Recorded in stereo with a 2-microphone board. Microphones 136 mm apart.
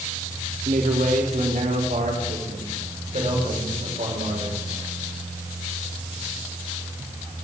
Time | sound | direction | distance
0.7 | a man speaking | 75° right (ahead or behind) | 4 m